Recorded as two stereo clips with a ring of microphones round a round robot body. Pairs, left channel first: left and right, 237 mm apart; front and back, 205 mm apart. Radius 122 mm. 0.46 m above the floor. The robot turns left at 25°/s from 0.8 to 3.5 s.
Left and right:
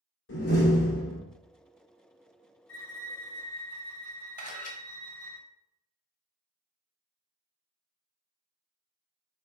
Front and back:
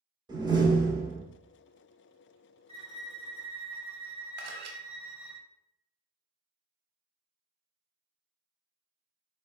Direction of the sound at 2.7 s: 120° left.